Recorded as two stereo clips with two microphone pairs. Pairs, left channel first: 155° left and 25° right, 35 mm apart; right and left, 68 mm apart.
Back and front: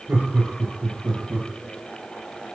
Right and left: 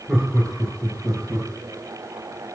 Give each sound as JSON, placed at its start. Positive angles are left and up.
{"t": 0.1, "sound": "laughter", "azimuth_deg": 0, "distance_m": 4.5}